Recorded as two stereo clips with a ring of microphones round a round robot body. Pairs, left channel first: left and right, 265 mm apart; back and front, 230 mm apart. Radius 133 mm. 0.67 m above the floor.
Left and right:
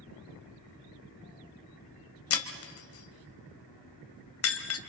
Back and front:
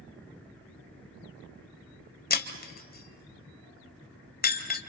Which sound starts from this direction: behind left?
Breaking glass, at 2.3 s.